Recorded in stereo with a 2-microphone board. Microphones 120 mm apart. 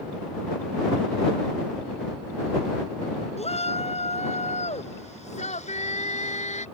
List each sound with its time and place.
3.4 s a shout: 65° left (ahead or behind); by 6.7 s 70° left (ahead or behind)